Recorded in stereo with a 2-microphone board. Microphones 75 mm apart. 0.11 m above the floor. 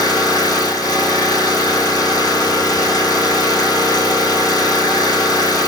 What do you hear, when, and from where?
0.0 s an engine running: 60° left (ahead or behind), 1.4 m